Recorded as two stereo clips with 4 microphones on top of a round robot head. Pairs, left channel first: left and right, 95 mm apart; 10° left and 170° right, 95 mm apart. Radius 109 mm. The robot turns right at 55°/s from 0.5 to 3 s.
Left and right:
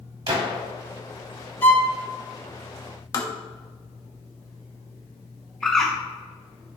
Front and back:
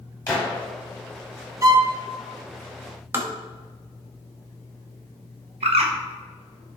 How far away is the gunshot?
About 1.9 m.